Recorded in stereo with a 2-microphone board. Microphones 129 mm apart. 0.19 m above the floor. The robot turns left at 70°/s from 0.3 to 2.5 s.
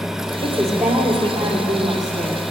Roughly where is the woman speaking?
Ahead.